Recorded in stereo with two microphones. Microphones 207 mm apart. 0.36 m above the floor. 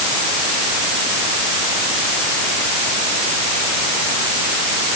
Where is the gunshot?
I don't hear a gunshot.